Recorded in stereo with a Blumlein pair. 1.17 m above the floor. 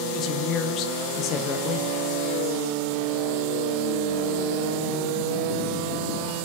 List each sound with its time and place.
0.1 s a woman speaking: 35° left, 1.0 m